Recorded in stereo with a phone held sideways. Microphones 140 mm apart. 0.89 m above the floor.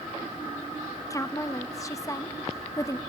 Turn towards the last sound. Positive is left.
turn(degrees=25)  # may be behind; listen again after turning